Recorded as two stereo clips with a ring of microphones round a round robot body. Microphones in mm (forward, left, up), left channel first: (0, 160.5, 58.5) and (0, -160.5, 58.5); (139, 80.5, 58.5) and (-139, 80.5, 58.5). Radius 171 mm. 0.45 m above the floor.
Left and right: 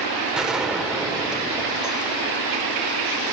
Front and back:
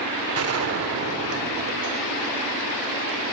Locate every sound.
0.3 s a gunshot: 175° right, 1.5 m